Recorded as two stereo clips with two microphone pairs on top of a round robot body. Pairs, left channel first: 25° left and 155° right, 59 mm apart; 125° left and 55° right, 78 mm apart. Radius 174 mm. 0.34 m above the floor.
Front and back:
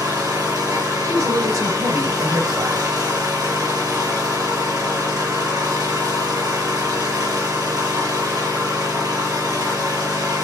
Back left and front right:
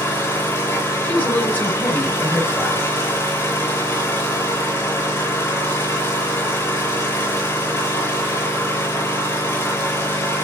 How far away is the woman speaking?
About 5 m.